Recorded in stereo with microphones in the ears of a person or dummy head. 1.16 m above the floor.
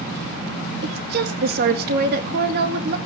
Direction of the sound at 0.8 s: 50° right (ahead or behind).